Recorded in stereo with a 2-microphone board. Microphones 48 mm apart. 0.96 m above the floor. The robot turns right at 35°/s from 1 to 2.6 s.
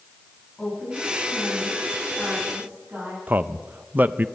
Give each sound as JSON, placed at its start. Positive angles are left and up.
{"t": 0.6, "sound": "a woman speaking", "azimuth_deg": 170, "distance_m": 9.5}
{"t": 3.3, "sound": "a man speaking", "side_deg": -40, "distance_m": 0.5}